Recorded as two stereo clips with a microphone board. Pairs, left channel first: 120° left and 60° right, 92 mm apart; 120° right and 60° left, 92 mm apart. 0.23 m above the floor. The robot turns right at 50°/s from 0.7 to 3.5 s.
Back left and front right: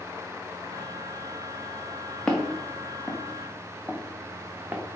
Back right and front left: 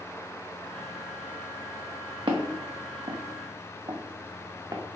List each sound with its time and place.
2.3 s footsteps: 35° left, 0.9 m; by 4.8 s 5° left, 0.9 m